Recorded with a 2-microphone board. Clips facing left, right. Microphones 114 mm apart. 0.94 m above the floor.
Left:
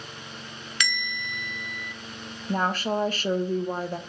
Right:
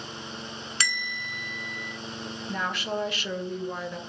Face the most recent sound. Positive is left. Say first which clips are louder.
# left 6 dB
turn(degrees=40)  # may be behind; listen again after turning